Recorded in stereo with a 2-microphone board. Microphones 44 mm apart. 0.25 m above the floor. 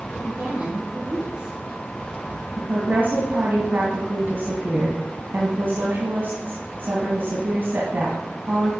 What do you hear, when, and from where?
0.1 s a woman speaking: 40° right (ahead or behind), 5 m
2.6 s a woman speaking: 45° right (ahead or behind), 1.9 m